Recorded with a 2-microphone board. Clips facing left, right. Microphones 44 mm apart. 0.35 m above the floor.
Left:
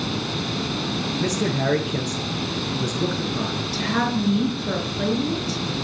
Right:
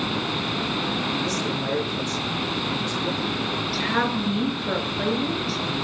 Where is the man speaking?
45° left (ahead or behind), 5 m.